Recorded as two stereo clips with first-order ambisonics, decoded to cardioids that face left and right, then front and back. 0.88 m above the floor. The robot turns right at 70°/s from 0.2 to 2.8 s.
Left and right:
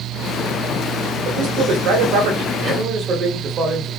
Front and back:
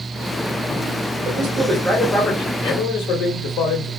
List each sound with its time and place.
1.2 s a man speaking: 145° right, 1.0 m; by 3.9 s 35° right, 1.0 m